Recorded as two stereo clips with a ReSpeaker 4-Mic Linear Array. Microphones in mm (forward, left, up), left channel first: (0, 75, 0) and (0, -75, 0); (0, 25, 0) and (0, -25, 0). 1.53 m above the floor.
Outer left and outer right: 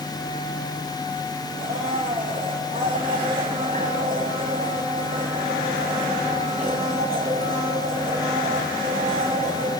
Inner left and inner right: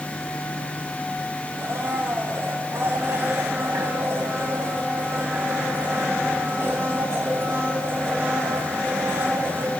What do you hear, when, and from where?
1.6 s a blender: 65° right (ahead or behind), 6.5 m